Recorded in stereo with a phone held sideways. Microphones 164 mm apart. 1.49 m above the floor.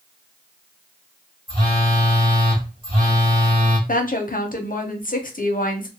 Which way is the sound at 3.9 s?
55° left (ahead or behind).